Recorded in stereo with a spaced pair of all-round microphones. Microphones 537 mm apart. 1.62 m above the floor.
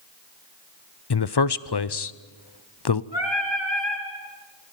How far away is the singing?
About 5.5 m.